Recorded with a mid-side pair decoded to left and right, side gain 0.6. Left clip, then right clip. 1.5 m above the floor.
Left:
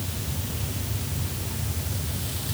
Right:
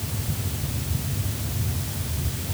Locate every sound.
Only background noise.